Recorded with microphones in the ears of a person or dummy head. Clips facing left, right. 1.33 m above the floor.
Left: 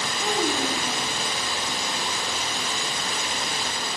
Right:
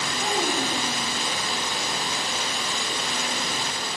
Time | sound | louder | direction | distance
0.2 | a child speaking | left 1 dB | 15° right (ahead or behind) | 4.5 m